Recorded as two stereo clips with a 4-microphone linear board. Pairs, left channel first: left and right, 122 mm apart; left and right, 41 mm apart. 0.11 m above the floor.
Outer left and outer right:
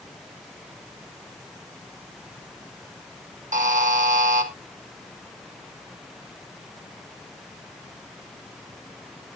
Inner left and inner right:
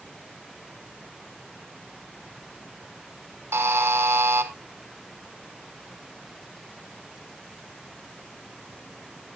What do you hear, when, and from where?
3.5 s a buzzer: 80° right, 0.9 m